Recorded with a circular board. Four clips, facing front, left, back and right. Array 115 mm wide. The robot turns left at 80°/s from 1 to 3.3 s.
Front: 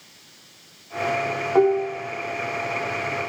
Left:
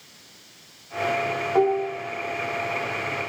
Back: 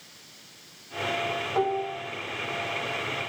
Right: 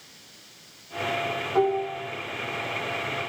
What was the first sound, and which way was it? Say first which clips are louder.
Dishes clattering: left 2 dB, front 9 dB; 20° left.